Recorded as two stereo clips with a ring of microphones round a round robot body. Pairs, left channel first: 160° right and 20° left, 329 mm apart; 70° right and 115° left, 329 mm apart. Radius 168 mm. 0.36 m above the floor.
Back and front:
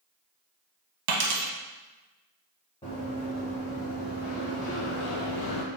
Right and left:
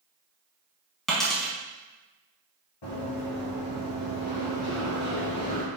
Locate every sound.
1.1 s a dropped coin: 20° left, 0.8 m
2.8 s running footsteps: 85° right, 1.8 m; by 5.7 s 135° right, 0.7 m